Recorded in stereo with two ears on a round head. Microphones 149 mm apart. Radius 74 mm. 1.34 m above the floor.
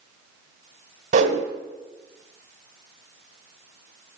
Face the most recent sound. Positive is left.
turn(degrees=-50)  # may be behind; listen again after turning